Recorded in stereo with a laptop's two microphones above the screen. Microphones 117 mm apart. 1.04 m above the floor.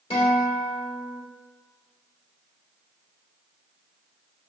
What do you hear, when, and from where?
0.1 s a guitar: 50° left (ahead or behind), 2.5 m